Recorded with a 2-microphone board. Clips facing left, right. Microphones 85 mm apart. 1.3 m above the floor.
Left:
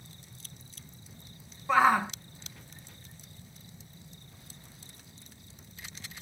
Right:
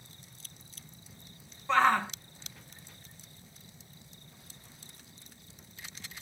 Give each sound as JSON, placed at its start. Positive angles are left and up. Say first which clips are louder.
{"t": 1.7, "sound": "a shout", "louder": "left 2 dB", "side_deg": 10}